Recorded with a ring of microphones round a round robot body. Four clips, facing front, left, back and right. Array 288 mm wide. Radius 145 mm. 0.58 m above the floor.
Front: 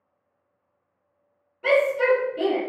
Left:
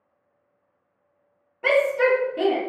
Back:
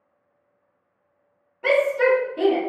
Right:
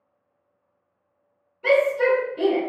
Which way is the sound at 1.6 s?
110° left.